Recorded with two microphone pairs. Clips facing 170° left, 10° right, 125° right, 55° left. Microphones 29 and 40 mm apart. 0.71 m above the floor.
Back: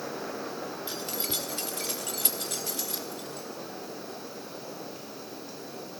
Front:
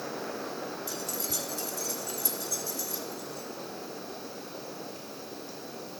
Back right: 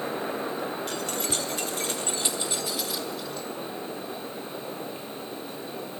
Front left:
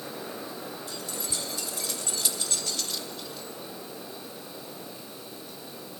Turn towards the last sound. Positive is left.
turn(degrees=140)